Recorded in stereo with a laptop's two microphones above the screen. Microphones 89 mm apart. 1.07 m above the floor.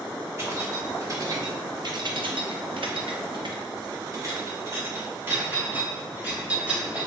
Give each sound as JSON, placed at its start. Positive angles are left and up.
{"t": 0.4, "sound": "keys jangling", "side_deg": -30, "distance_m": 1.4}